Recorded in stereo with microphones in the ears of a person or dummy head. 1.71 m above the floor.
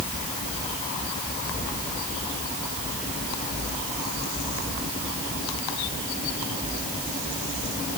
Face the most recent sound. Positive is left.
No sound to turn to.